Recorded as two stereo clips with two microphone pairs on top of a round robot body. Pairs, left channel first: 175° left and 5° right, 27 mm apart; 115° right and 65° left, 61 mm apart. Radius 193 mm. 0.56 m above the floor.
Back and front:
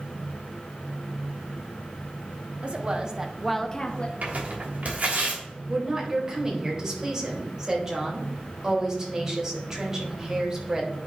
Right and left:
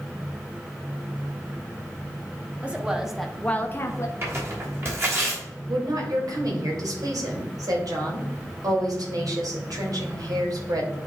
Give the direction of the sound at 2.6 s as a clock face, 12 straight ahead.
12 o'clock.